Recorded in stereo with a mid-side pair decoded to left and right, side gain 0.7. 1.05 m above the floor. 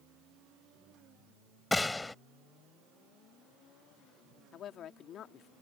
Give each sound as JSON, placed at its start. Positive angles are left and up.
{"t": 1.7, "sound": "a gunshot", "azimuth_deg": 10}
{"t": 4.5, "sound": "a woman speaking", "azimuth_deg": 45}